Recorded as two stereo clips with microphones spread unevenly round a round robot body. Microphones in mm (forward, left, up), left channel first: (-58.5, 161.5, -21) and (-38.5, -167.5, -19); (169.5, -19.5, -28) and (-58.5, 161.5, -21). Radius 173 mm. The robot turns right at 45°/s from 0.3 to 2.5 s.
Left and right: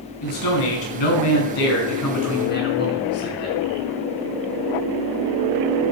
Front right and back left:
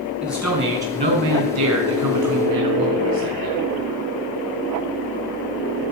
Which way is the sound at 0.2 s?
55° left.